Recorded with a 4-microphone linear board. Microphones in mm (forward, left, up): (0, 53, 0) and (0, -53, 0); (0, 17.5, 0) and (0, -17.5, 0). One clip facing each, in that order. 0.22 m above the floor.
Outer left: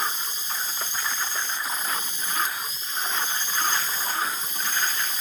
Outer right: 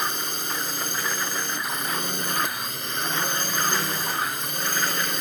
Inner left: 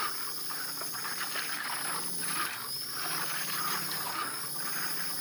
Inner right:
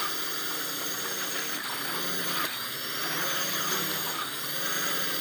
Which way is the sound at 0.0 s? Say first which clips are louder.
Outer right 2 dB, inner right 5 dB; 65° right (ahead or behind).